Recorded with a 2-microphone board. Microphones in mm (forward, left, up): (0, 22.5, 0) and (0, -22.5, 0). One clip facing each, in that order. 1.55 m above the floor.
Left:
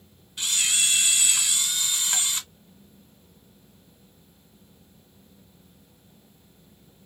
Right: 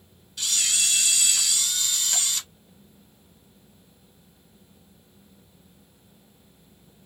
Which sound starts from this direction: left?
A camera shutter, at 0.4 s.